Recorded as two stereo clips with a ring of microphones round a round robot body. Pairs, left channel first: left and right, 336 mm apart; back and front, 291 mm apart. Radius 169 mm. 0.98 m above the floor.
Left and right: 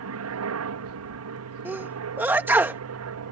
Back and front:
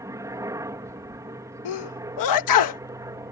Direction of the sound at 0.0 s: 75° right.